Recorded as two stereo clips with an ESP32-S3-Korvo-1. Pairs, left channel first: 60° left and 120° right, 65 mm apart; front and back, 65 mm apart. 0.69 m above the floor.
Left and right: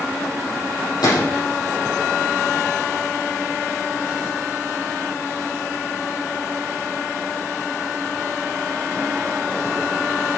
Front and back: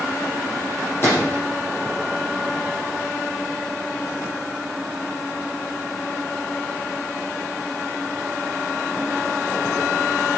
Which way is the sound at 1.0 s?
55° left.